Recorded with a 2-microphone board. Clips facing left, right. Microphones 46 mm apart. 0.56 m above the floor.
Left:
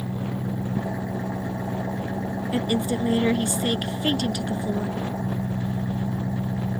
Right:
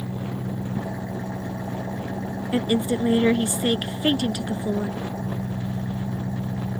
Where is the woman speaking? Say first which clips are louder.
Right 3 dB; 15° right (ahead or behind).